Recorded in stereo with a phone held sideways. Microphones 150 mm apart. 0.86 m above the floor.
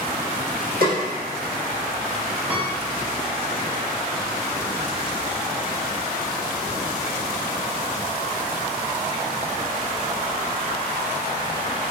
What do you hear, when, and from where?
0.8 s a snare drum: 80° right, 1.2 m
2.5 s a piano: 5° right (ahead or behind), 0.8 m